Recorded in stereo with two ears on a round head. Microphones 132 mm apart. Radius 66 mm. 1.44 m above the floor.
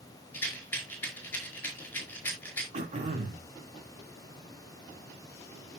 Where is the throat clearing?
45° right (ahead or behind), 3 m.